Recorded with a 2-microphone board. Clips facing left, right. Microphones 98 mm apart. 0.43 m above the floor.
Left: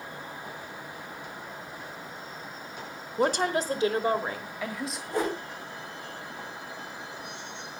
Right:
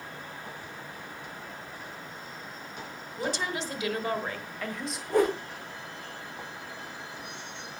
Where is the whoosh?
55° right (ahead or behind), 9 m.